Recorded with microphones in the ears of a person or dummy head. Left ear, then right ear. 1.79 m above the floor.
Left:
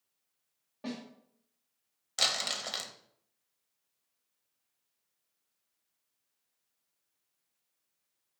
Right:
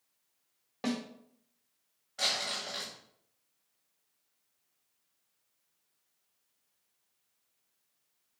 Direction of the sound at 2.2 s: 85° left.